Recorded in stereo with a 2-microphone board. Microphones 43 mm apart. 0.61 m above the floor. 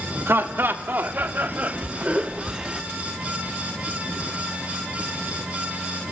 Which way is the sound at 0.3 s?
55° right (ahead or behind).